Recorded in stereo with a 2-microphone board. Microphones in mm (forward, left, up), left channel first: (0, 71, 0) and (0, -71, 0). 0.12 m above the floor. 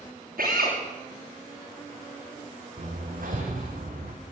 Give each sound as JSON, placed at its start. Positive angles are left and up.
{"t": 0.4, "sound": "a drill", "side_deg": -85, "distance_m": 9.5}
{"t": 2.8, "sound": "hammering", "side_deg": -70, "distance_m": 4.5}